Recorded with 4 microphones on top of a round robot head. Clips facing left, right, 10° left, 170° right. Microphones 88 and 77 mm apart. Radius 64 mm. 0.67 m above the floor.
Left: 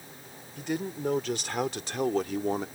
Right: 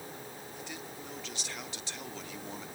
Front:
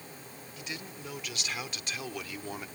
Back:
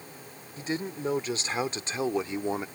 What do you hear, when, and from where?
0.6 s a man speaking: 135° left; by 2.7 s 125° left